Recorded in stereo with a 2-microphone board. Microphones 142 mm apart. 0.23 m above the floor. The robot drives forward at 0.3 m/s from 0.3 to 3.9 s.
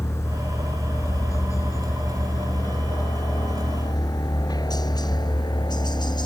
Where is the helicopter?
20° left (ahead or behind); by 6.3 s 30° left (ahead or behind).